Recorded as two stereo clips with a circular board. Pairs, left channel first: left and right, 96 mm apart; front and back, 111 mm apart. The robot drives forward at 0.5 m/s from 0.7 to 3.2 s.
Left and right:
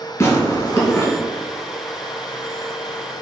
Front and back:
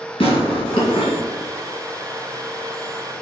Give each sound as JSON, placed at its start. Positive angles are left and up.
{"t": 0.2, "sound": "tearing paper", "azimuth_deg": 30, "distance_m": 2.5}